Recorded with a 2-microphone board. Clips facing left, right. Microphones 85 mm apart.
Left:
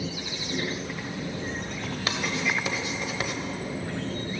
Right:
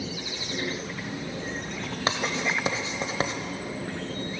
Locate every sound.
2.1 s writing: 30° right (ahead or behind), 1.0 m